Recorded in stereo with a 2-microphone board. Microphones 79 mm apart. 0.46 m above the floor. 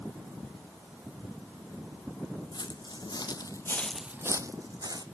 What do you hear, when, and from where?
2.5 s footsteps: 70° left (ahead or behind), 1.6 m; by 5.0 s 55° right (ahead or behind), 1.4 m